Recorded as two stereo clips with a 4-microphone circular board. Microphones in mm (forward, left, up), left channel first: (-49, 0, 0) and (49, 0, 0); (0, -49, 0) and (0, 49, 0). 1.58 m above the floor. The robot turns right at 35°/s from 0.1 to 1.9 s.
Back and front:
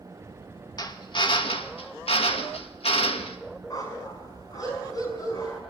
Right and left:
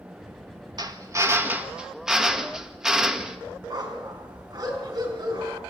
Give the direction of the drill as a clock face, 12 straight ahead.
8 o'clock.